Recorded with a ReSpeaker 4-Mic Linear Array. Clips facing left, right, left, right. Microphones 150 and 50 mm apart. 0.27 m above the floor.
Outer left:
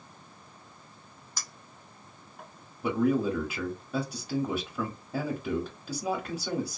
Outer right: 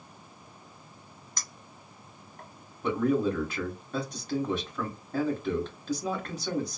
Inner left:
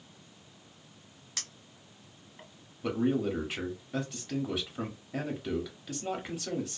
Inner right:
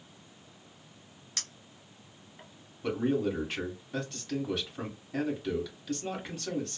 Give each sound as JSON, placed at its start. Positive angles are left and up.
{"t": 1.4, "sound": "a clink", "side_deg": 5, "distance_m": 1.0}
{"t": 2.8, "sound": "a man speaking", "side_deg": 10, "distance_m": 1.0}